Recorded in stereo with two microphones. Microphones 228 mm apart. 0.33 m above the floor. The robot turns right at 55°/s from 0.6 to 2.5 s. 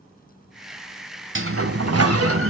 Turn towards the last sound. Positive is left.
turn(degrees=-60)